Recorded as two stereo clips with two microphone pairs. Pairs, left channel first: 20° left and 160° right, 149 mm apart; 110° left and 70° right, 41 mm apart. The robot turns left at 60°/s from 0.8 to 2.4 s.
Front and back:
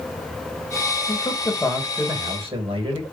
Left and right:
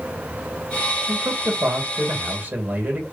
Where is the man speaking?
30° right, 2.0 m; by 3.0 s 110° right, 2.0 m.